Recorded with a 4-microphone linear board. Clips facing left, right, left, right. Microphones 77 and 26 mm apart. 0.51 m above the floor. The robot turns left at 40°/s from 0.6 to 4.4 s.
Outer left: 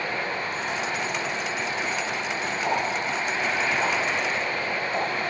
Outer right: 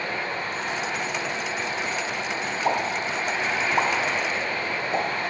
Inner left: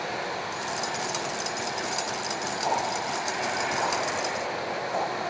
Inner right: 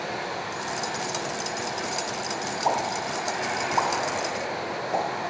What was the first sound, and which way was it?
A pop, 50° right (ahead or behind).